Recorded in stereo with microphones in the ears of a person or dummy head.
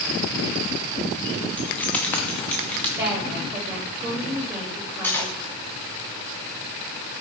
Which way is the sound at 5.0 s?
15° left (ahead or behind).